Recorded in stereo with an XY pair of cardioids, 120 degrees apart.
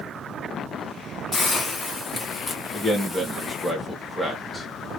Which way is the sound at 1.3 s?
25° left.